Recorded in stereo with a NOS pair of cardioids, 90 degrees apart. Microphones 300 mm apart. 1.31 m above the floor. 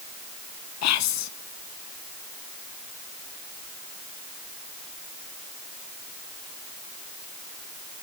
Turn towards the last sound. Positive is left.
turn(degrees=65)